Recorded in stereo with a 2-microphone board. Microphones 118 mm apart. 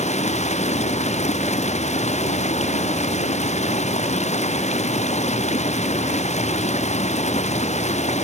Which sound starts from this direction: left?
Running water, at 0.0 s.